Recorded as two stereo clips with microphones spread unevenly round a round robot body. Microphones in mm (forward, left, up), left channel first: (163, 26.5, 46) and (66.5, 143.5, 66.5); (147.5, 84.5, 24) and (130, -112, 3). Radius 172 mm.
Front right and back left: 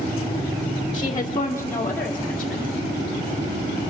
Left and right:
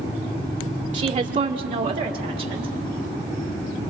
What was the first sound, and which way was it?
A woman speaking, 80° right.